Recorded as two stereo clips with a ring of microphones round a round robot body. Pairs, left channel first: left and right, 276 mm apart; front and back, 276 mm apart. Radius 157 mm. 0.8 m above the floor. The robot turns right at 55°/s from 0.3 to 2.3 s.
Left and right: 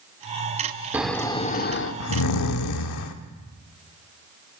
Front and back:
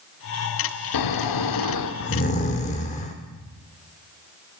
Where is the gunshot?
No gunshot in this recording.